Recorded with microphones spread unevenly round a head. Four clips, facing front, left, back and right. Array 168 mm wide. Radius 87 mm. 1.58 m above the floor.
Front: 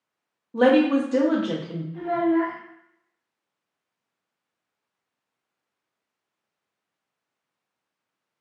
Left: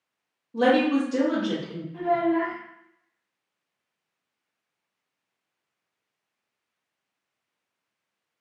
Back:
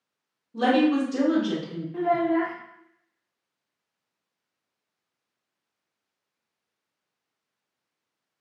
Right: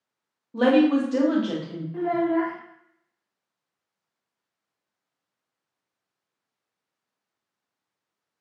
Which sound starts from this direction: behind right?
A child speaking, at 1.9 s.